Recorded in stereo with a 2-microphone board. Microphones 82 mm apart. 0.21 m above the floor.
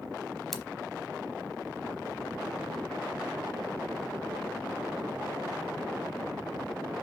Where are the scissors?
Centre (ahead or behind), 0.8 m.